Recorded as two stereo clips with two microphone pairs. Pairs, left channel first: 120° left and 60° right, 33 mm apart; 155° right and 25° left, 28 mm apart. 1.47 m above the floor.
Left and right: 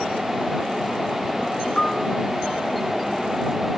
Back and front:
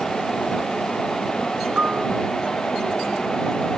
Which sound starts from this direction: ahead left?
A piano, at 1.8 s.